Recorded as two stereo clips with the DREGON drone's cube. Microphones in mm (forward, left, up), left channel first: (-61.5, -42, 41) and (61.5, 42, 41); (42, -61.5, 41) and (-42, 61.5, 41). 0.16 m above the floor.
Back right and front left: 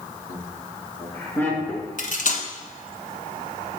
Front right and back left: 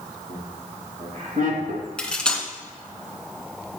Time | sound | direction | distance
0.3 | laughter | 150° left | 3 m
2.0 | cutlery clinking | 140° right | 1.1 m